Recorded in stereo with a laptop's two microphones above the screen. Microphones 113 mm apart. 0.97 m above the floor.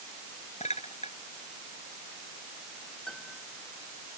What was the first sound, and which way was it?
A clink, 75° left (ahead or behind).